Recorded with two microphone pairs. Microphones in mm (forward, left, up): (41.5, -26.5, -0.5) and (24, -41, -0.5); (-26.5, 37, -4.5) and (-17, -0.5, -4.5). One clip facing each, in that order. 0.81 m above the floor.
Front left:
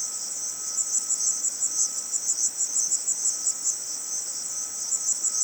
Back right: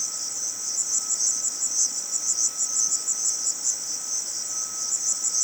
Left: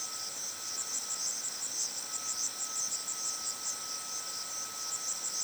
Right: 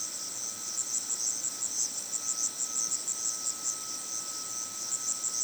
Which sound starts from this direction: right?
An insect, at 0.0 s.